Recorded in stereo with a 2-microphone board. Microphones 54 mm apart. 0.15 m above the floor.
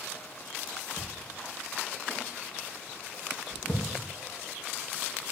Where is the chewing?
40° left (ahead or behind), 6 m.